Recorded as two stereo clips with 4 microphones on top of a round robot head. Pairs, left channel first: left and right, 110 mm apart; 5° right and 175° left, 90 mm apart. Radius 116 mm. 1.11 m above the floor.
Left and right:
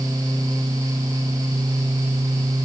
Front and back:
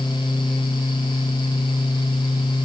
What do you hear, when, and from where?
Only background noise.